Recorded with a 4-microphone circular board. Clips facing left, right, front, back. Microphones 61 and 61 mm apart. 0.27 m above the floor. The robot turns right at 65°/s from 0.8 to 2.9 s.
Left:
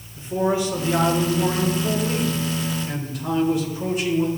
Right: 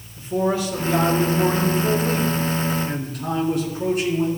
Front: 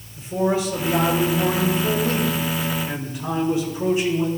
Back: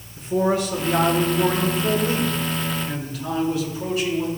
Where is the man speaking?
160° left, 3.5 m; by 4.3 s 65° right, 3.5 m.